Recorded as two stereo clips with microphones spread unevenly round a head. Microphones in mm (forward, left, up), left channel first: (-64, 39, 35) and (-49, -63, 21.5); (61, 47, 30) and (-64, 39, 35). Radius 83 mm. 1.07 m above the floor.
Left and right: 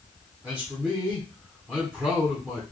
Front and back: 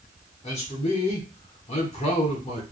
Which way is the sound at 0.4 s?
10° right.